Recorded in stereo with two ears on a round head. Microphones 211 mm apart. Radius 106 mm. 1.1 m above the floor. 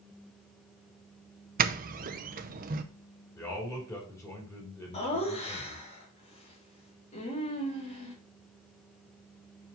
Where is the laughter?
25° left (ahead or behind), 3 m.